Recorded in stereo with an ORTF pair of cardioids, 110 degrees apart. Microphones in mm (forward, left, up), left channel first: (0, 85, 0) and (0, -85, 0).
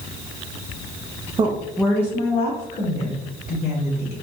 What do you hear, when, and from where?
1.4 s a woman speaking: 35° right, 0.6 m; by 4.1 s 60° left, 1.9 m